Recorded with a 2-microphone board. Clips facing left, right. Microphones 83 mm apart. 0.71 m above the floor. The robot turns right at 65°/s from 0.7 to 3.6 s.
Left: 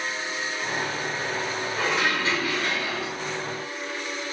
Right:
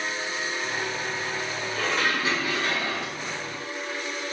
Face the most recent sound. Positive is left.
turn(degrees=-80)